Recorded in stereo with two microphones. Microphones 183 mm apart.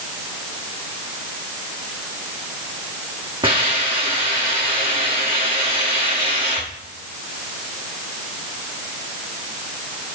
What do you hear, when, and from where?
3.4 s a hiss: 30° right (ahead or behind), 4.5 m